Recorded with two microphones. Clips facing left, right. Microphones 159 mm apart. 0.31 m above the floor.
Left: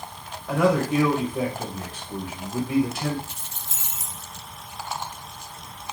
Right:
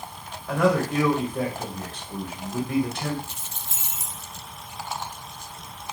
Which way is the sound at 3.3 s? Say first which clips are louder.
Right 1 dB; 65° right (ahead or behind).